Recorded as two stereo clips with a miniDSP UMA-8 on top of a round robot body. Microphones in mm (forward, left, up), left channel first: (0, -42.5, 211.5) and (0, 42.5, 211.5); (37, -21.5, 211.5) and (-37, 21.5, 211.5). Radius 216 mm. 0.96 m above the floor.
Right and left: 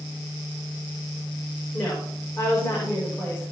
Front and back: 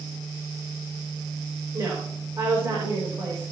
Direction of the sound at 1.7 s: 150° right.